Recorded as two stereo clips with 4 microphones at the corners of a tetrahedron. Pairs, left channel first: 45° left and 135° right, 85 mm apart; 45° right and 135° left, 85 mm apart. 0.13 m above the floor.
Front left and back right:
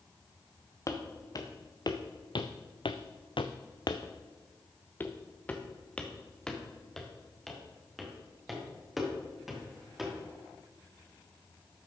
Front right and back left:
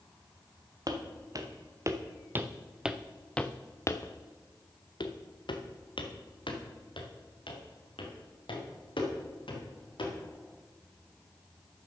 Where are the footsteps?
95° left, 1.7 m; by 10.1 s 50° right, 4 m.